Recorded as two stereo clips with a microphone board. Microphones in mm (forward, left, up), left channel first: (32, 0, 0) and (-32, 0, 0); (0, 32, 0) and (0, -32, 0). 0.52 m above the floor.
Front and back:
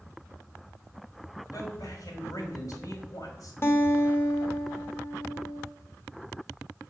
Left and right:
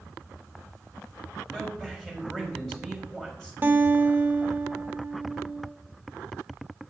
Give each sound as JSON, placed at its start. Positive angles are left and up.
{"t": 1.5, "sound": "a man speaking", "azimuth_deg": 10, "distance_m": 3.0}
{"t": 3.6, "sound": "a guitar", "azimuth_deg": -40, "distance_m": 0.9}